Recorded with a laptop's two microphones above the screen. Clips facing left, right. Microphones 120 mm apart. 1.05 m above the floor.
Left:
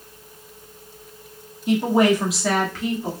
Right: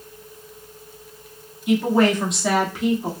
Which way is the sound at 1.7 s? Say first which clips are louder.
Even; 35° left (ahead or behind).